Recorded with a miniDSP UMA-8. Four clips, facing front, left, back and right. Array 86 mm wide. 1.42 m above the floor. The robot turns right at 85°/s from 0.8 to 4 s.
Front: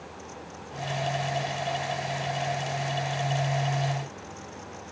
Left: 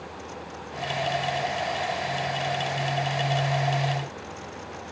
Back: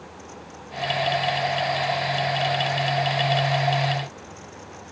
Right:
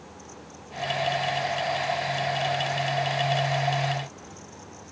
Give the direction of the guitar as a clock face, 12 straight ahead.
I don't hear a guitar.